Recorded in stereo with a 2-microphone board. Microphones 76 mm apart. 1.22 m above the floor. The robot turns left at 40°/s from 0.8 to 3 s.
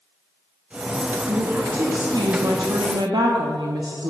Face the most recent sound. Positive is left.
turn(degrees=-105)